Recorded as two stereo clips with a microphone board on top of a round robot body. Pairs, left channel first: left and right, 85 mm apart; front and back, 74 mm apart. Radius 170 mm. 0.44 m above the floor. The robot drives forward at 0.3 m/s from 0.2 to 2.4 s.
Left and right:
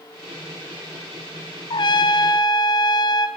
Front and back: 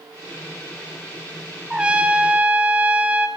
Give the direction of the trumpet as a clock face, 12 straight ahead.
9 o'clock.